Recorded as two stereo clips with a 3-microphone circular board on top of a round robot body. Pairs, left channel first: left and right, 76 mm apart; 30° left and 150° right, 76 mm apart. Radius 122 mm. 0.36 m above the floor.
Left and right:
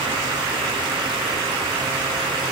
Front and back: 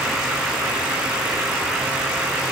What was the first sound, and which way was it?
Only background noise.